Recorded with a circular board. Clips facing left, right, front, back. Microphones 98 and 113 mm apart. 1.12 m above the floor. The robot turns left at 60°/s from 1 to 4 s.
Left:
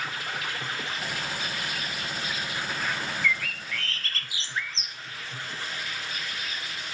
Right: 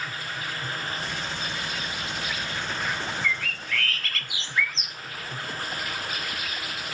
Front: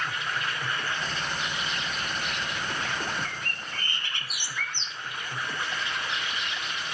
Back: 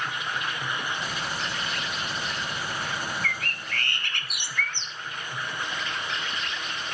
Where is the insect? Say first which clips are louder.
Left 1 dB, even; 105° left, 1.5 m; by 7.0 s 75° right, 1.5 m.